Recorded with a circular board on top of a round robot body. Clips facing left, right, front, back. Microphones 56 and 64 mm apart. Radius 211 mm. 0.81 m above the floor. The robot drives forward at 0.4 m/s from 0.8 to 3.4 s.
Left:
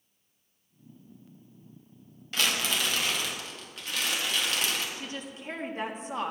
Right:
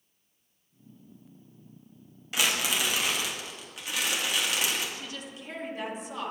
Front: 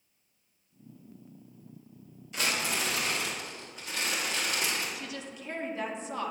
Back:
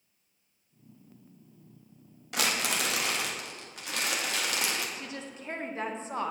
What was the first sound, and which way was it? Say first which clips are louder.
Crumpling: right 1 dB, back 1 dB; 170° right.